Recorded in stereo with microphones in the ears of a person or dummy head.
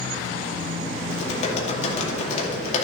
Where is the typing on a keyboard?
40° left (ahead or behind), 2.5 m.